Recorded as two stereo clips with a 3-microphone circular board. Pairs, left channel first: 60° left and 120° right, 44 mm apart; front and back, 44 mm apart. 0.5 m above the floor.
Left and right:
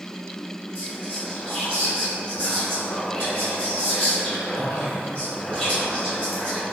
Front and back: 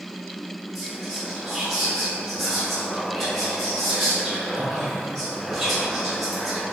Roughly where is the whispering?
Left.